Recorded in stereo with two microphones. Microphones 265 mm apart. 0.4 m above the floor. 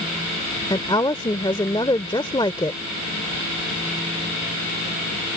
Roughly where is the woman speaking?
Centre.